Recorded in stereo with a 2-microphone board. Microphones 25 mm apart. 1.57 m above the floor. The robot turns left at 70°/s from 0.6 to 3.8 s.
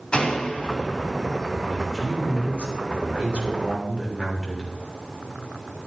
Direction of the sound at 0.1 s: 135° left.